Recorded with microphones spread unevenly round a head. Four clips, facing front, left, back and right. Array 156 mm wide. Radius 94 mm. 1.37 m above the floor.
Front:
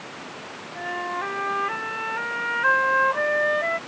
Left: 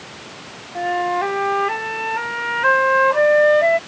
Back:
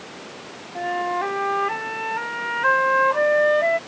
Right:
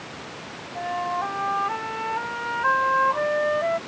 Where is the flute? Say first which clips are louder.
Left 7 dB, back 6 dB; 105° left.